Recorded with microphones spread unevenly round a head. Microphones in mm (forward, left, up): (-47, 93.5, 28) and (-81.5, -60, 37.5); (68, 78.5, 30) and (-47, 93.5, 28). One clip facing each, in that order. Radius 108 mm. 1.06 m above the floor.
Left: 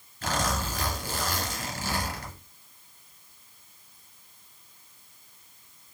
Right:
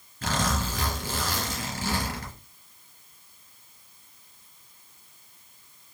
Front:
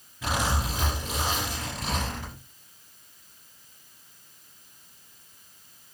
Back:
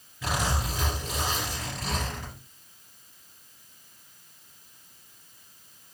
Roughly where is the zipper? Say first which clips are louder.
Right 1 dB, front 1 dB; right.